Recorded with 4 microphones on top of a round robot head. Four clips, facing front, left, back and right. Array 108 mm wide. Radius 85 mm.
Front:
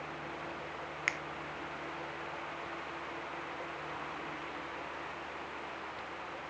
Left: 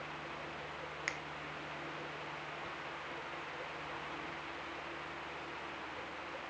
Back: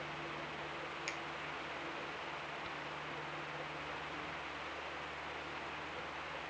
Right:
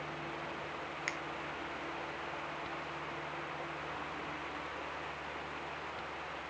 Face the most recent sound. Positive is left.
turn(degrees=5)